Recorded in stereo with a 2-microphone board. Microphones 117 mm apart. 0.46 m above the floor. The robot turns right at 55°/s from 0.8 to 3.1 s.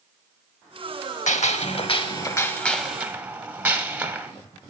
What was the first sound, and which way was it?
A gunshot, 95° left.